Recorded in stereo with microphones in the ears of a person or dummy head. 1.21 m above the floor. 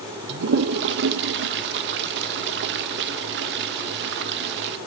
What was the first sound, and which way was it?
A toilet flushing, 65° right (ahead or behind).